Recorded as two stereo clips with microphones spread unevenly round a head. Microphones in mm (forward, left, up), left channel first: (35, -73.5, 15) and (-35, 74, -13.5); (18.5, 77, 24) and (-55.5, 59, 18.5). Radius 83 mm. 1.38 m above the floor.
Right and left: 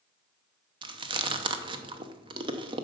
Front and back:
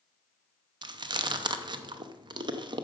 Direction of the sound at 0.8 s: 175° left.